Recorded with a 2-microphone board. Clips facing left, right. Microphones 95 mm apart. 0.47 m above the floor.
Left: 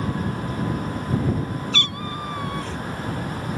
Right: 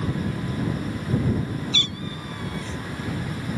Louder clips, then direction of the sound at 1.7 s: Left 3 dB; 60° left (ahead or behind).